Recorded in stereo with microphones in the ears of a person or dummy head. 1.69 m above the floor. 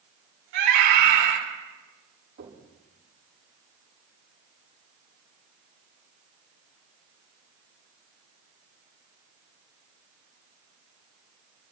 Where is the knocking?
50° right (ahead or behind), 7 m.